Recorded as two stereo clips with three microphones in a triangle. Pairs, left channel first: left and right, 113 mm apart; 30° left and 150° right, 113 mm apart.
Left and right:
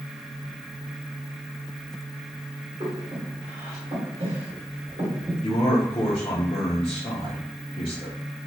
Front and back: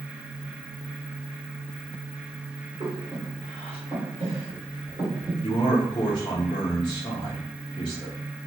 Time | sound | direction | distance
2.8 | breathing | 120° right | 1.4 m
5.4 | a man speaking | 65° left | 0.7 m